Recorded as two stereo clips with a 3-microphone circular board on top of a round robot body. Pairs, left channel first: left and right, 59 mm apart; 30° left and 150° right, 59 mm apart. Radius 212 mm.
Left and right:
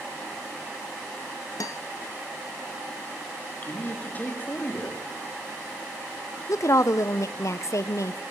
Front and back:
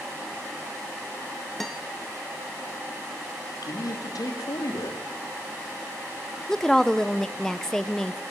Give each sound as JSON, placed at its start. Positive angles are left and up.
{"t": 1.6, "sound": "a guitar", "azimuth_deg": 120, "distance_m": 0.6}
{"t": 3.6, "sound": "a man speaking", "azimuth_deg": 30, "distance_m": 2.5}
{"t": 6.5, "sound": "a woman speaking", "azimuth_deg": 110, "distance_m": 0.9}